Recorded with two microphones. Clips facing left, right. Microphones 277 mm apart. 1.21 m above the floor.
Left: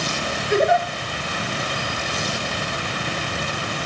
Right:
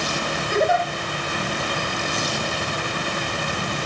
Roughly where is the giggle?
Left.